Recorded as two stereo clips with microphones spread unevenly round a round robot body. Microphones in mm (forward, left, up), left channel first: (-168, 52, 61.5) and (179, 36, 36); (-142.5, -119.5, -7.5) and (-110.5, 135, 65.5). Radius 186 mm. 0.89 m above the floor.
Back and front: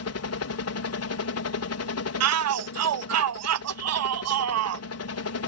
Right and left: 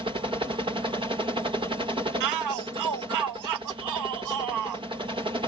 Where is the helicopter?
165° left.